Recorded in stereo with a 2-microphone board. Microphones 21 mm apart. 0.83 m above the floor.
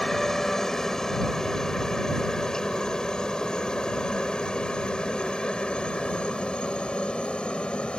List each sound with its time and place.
0.0 s a helicopter: 15° left (ahead or behind); by 8.0 s 55° left (ahead or behind)